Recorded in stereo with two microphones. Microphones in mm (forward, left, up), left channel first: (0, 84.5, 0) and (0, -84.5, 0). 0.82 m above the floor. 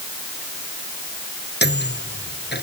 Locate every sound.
1.6 s a microwave: 85° left